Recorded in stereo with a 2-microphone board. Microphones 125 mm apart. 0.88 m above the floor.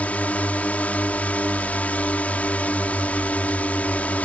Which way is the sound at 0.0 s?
10° left (ahead or behind).